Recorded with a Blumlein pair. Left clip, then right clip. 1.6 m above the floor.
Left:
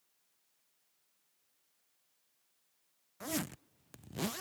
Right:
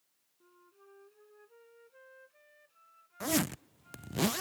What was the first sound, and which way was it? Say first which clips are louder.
A flute: right 18 dB; 45° right.